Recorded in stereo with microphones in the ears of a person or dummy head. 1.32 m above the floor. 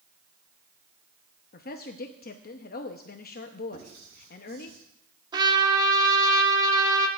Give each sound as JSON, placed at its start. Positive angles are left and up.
{"t": 1.5, "sound": "a woman speaking", "side_deg": 45, "distance_m": 0.8}
{"t": 3.7, "sound": "writing", "side_deg": -75, "distance_m": 6.5}
{"t": 5.3, "sound": "a trumpet", "side_deg": -20, "distance_m": 1.3}